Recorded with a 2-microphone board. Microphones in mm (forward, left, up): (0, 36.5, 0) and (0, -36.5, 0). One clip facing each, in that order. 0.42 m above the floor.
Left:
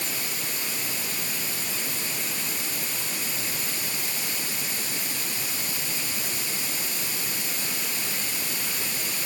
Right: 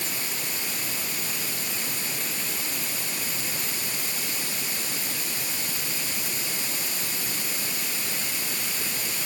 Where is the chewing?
No chewing in this recording.